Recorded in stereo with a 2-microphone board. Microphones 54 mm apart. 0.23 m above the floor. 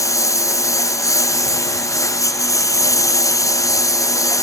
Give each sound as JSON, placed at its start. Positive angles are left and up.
{"t": 0.0, "sound": "a lawn mower", "side_deg": 75}